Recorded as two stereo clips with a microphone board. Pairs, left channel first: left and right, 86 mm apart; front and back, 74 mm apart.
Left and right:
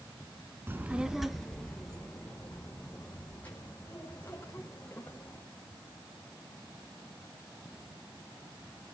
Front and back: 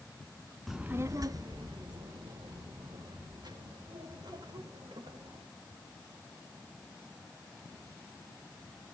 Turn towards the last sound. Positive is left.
turn(degrees=165)